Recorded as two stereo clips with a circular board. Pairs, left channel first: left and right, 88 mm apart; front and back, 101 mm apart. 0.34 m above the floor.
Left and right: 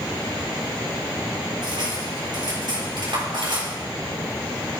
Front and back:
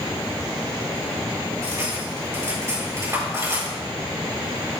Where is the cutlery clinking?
120° right, 4 m.